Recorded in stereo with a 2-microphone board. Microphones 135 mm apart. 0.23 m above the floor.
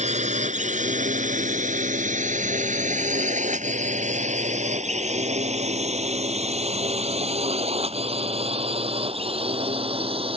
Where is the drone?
55° right (ahead or behind); by 10.4 s 45° right (ahead or behind).